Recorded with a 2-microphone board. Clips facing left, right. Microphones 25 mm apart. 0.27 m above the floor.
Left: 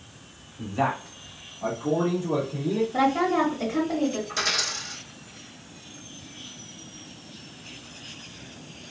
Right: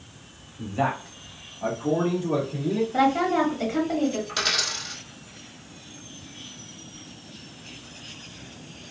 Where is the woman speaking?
30° right (ahead or behind), 1.3 m.